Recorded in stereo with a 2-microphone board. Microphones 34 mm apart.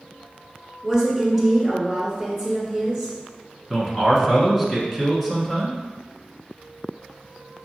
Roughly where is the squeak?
No squeak in this recording.